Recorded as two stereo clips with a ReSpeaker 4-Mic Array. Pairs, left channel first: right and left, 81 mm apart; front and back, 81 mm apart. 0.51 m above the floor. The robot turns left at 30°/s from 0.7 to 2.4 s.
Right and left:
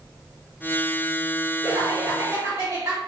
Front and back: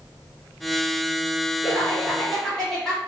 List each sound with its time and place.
1.6 s laughter: 105° left, 1.9 m; by 3.0 s 80° left, 1.9 m